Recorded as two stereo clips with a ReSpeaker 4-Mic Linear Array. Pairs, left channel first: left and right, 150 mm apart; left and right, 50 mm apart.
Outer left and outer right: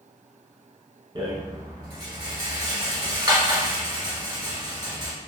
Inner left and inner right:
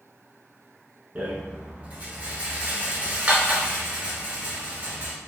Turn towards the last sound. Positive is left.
turn(degrees=-35)  # may be behind; listen again after turning